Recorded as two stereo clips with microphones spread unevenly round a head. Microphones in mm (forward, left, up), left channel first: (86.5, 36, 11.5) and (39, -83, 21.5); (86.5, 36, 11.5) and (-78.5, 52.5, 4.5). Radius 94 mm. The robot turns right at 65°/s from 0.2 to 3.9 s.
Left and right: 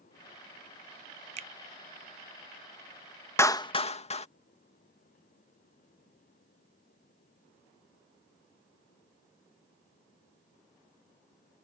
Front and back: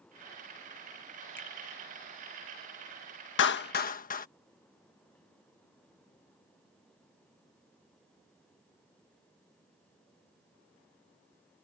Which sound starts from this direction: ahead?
A clap, at 3.4 s.